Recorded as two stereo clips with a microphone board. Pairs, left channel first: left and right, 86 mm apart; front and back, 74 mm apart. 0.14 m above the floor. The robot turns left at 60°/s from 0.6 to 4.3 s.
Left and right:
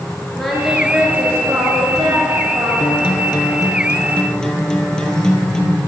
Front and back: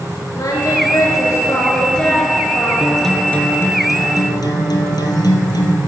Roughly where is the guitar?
Left.